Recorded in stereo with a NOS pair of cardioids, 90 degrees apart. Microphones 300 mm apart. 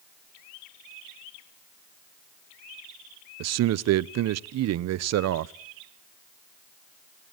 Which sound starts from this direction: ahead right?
A man speaking, at 3.4 s.